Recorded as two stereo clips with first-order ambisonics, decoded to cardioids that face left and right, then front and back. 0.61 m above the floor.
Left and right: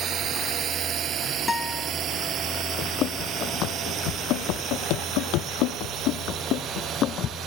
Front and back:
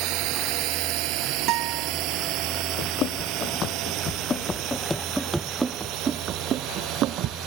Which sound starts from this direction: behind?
A guitar, at 1.5 s.